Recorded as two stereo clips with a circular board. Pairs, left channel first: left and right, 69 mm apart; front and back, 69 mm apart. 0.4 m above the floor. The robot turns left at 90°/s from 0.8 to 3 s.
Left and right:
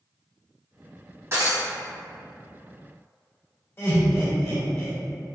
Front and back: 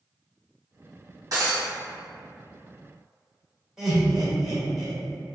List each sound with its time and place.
1.3 s breaking glass: 140° right, 1.7 m; by 1.7 s 170° right, 1.7 m
3.8 s laughter: 95° left, 1.5 m